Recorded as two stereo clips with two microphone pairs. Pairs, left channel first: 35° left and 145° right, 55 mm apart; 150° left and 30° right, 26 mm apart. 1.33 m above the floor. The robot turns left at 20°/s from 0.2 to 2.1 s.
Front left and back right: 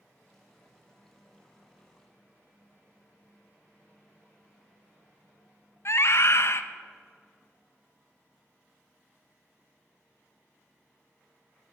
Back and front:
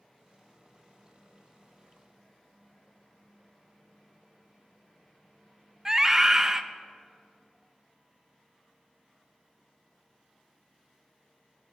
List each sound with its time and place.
5.8 s a scream: 40° left, 0.7 m